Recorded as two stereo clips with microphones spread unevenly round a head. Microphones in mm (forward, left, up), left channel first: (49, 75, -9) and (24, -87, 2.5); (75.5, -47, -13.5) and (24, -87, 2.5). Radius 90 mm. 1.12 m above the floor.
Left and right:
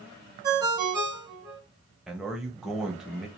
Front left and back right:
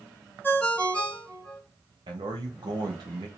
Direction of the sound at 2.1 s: 175° left.